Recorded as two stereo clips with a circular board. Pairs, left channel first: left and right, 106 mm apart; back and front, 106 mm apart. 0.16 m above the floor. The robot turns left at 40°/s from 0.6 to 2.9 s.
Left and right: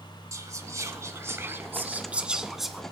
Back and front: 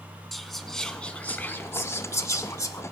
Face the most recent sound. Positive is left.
turn(degrees=175)